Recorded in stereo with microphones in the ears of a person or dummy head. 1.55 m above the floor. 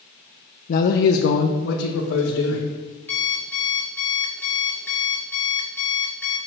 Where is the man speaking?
50° left (ahead or behind), 0.7 m; by 2.6 s 80° left, 1.9 m.